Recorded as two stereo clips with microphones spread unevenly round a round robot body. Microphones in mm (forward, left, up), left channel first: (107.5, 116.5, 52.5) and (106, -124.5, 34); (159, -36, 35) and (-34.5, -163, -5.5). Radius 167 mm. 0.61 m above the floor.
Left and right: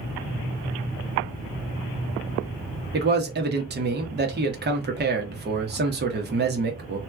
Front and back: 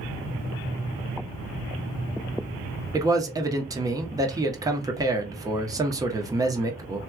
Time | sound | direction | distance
2.9 | a man speaking | 85° right | 1.1 m